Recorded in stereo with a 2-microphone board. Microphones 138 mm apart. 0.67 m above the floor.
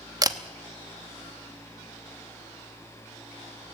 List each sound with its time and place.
0.2 s a camera shutter: 25° right (ahead or behind), 0.9 m